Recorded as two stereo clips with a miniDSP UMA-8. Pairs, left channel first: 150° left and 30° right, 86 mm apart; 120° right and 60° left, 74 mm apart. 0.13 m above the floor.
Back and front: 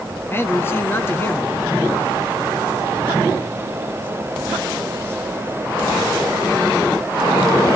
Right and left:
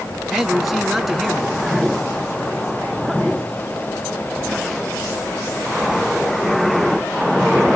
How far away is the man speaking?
About 1.4 m.